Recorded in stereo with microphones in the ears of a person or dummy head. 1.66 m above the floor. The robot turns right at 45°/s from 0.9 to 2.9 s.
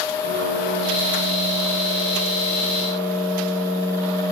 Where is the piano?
60° right, 1.8 m; by 4.2 s 30° left, 1.8 m.